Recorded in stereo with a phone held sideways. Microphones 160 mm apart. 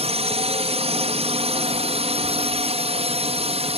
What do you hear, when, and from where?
0.0 s a drone: 40° right (ahead or behind)